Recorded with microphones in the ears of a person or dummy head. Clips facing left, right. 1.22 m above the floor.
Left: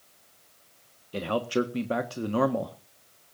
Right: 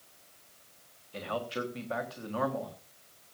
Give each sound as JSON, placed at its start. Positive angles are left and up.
{"t": 1.1, "sound": "a man speaking", "side_deg": 50, "distance_m": 1.3}